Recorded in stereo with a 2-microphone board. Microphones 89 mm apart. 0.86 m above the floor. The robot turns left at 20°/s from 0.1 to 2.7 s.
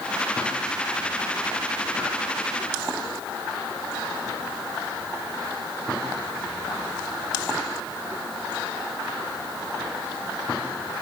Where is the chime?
I don't hear a chime.